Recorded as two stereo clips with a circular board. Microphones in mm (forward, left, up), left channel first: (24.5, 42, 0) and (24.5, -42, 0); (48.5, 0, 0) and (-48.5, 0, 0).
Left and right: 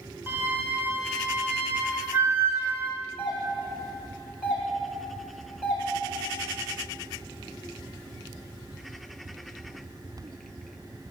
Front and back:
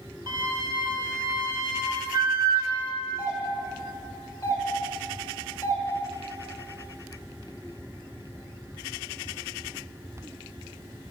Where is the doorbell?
25° right, 1.8 m.